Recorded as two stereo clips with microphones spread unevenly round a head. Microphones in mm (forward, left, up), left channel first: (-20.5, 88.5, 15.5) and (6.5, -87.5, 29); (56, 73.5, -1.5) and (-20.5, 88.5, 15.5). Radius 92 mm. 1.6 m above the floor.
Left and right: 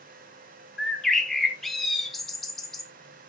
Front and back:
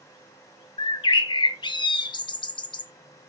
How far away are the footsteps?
No footsteps in this recording.